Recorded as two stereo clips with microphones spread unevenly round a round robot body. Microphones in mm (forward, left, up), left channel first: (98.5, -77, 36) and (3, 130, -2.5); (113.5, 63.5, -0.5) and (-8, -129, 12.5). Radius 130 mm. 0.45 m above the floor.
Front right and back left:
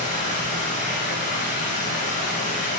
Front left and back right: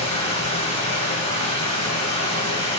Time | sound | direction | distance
0.0 | running water | 5° right | 1.4 m